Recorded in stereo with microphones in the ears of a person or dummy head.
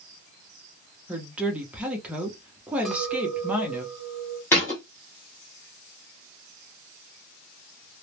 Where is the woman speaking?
10° right (ahead or behind), 0.5 m.